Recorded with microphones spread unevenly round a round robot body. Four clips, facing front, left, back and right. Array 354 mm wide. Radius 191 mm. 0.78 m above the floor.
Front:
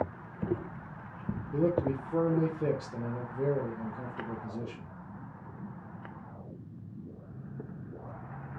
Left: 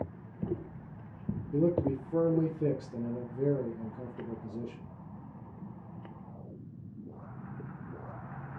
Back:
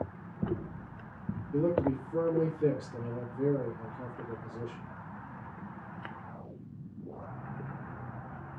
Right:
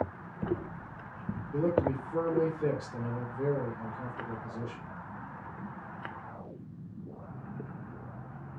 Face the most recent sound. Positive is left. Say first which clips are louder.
# even, even
turn(degrees=70)